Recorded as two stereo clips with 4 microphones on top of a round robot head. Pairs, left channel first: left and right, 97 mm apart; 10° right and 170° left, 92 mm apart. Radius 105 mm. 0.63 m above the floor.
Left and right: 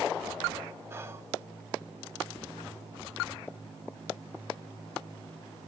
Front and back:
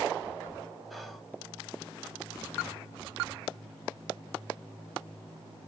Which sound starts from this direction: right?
Whispering, at 0.9 s.